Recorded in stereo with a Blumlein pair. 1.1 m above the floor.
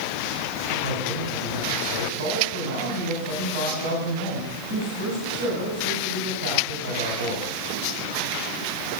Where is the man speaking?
55° right, 7.5 m.